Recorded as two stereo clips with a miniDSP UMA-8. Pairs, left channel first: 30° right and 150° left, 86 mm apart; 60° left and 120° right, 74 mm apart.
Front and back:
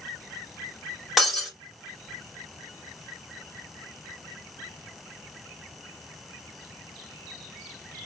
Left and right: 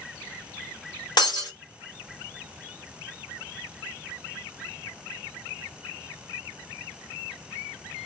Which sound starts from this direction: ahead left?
Breaking glass, at 1.2 s.